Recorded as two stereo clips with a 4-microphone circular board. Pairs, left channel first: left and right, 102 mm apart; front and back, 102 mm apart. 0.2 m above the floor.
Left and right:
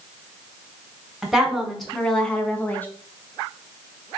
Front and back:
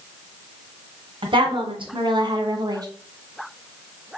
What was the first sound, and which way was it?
A woman speaking, 175° right.